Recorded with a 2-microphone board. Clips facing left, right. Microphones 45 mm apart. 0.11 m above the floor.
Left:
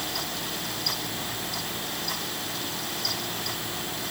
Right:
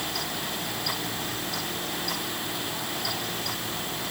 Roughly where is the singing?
I don't hear singing.